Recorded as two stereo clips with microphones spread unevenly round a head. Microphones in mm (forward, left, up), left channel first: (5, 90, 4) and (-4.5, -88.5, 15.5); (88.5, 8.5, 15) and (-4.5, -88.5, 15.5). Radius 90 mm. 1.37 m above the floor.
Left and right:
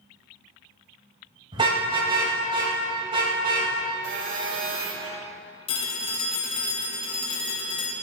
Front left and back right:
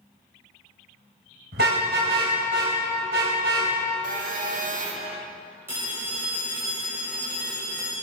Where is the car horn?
155° right, 3.5 m.